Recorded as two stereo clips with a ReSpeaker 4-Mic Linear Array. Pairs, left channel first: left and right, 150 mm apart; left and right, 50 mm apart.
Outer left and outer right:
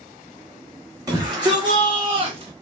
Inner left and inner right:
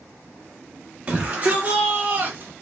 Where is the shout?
25° right (ahead or behind), 2 m; by 2.5 s 40° right (ahead or behind), 1.1 m.